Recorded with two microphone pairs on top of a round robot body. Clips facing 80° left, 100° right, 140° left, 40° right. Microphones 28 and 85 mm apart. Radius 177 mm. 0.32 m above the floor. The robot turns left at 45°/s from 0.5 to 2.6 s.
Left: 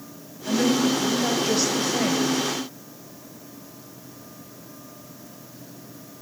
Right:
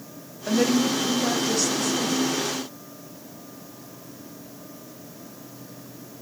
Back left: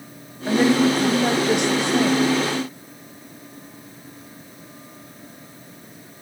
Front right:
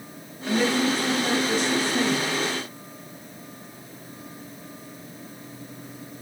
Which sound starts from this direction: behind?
A woman speaking, at 0.5 s.